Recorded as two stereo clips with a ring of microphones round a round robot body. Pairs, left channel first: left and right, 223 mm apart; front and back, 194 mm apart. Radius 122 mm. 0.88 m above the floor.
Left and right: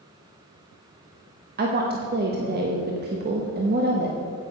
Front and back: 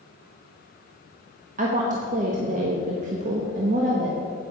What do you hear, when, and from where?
1.6 s a woman speaking: 130° right, 1.0 m